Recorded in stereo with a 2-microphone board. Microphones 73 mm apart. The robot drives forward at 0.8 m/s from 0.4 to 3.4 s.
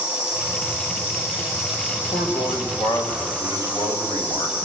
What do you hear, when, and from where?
0.0 s an insect: 40° left (ahead or behind), 8 m; by 4.7 s 30° left (ahead or behind), 10 m
1.9 s a man speaking: 75° left (ahead or behind), 3.5 m; by 4.6 s 60° left (ahead or behind), 4 m